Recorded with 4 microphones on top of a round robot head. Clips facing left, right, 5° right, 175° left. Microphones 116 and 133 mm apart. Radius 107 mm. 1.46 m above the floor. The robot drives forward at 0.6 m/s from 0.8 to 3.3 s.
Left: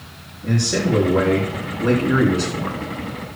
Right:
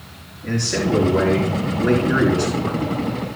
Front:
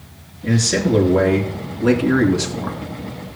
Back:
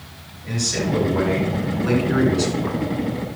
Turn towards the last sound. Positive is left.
turn(degrees=25)